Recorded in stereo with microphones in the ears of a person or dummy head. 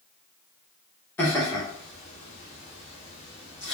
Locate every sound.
1.2 s laughter: 10° left (ahead or behind), 1.0 m; by 3.7 s 35° left (ahead or behind), 1.2 m